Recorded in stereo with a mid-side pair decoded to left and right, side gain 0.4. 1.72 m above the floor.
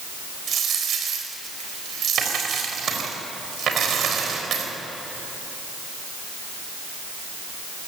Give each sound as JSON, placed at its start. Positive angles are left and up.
{"t": 0.5, "sound": "a dropped coin", "azimuth_deg": -70, "distance_m": 4.0}